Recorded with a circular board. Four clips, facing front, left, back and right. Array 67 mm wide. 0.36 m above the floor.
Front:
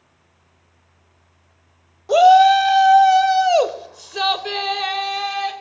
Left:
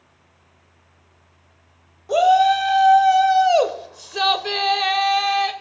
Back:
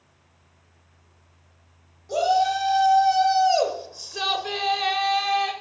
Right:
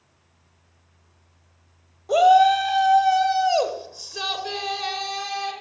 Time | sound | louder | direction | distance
2.1 | a shout | even, front 11 dB | 5° right | 1.6 m